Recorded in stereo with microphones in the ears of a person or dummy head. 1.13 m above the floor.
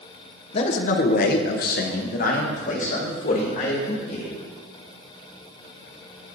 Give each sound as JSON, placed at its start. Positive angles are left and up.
{"t": 0.5, "sound": "a man speaking", "side_deg": 30, "distance_m": 0.5}